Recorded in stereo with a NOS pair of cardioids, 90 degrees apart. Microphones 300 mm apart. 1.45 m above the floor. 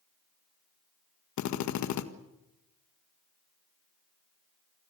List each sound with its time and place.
1.4 s a drill: 70° left, 1.8 m